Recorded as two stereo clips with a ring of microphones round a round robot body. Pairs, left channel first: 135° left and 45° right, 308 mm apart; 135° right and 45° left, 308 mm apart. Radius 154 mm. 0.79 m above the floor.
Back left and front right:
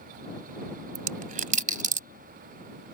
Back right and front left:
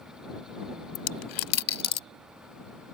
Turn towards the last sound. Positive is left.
turn(degrees=-110)